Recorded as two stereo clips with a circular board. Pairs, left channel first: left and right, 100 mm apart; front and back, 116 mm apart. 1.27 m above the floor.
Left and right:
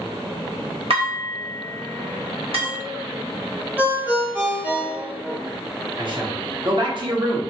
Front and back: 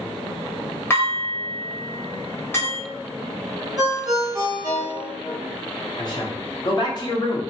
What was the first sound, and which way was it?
Dishes clattering, 70° right.